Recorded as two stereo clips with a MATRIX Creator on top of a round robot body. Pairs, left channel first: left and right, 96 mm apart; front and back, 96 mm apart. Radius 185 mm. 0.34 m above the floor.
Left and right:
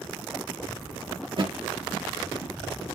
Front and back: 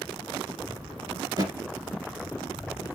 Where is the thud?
125° right, 1.9 m.